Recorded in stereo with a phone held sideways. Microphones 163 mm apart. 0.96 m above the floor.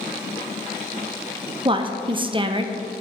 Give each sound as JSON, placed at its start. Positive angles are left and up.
{"t": 1.6, "sound": "a woman speaking", "side_deg": -30, "distance_m": 0.5}